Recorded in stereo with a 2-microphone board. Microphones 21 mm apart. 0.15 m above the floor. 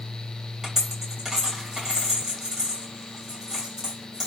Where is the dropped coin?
25° right (ahead or behind), 2 m.